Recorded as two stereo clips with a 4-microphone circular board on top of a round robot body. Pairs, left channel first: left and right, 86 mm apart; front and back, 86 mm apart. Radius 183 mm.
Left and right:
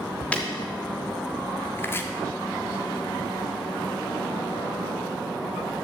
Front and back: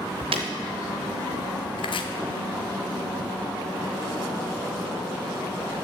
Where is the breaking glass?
165° left, 0.8 m.